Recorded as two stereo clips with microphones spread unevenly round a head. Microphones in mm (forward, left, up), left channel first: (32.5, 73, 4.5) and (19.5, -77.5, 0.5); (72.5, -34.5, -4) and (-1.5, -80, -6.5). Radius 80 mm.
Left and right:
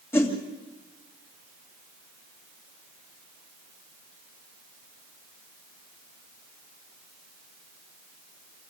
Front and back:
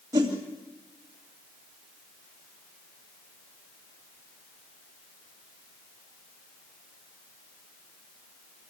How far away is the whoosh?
About 2.5 m.